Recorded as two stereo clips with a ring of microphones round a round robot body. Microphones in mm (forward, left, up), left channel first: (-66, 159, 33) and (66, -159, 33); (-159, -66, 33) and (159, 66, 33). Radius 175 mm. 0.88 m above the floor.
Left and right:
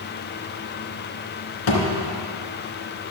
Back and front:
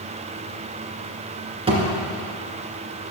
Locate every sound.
1.7 s a thud: 95° left, 2.5 m